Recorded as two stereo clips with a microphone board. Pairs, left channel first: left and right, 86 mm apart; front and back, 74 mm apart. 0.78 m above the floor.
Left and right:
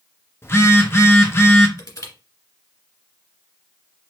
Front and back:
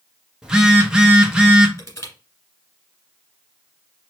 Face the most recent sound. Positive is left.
turn(degrees=50)